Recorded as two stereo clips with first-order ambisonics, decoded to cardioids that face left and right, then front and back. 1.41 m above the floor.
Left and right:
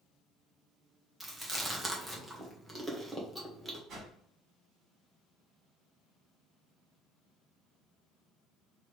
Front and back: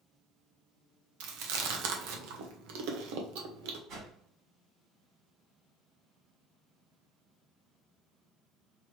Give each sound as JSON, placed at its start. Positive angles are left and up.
{"t": 1.2, "sound": "chewing", "azimuth_deg": -175, "distance_m": 1.1}
{"t": 3.9, "sound": "a whoosh", "azimuth_deg": -140, "distance_m": 2.5}